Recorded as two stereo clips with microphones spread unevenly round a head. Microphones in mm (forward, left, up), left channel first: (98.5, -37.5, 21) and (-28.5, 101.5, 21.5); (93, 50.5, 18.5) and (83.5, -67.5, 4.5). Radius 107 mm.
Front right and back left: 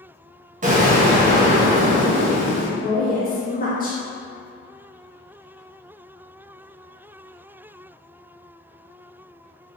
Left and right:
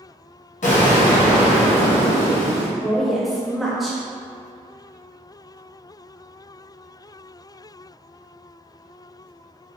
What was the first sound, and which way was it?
An explosion, 85° left.